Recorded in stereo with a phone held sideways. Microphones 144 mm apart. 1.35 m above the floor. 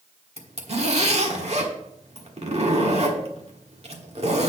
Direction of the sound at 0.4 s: 50° right (ahead or behind).